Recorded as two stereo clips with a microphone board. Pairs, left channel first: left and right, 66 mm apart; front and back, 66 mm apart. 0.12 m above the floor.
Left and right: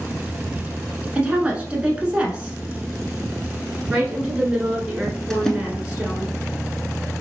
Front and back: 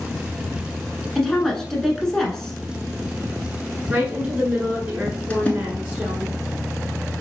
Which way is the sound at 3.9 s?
145° right.